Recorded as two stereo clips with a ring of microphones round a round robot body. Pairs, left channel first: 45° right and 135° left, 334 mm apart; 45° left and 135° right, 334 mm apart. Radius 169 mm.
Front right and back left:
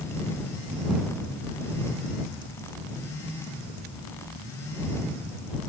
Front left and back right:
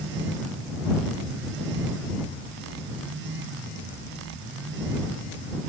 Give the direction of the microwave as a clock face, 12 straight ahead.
I don't hear a microwave.